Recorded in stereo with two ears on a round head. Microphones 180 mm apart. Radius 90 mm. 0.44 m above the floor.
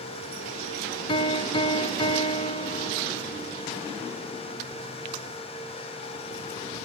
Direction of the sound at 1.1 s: 25° left (ahead or behind).